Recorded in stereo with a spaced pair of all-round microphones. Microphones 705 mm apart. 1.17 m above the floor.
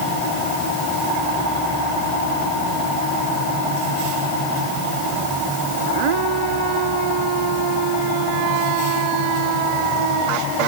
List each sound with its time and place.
Only background noise.